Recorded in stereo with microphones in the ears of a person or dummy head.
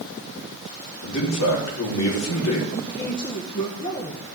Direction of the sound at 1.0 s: 80° left.